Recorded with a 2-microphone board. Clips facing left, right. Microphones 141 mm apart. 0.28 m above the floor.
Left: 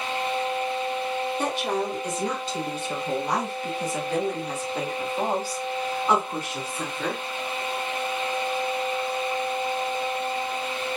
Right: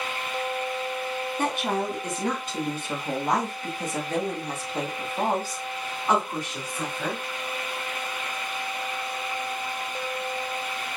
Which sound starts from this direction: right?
A woman speaking, at 1.4 s.